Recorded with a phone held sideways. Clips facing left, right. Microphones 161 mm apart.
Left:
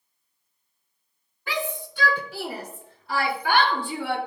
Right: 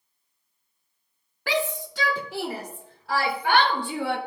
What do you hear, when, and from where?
1.5 s a shout: 85° right, 1.5 m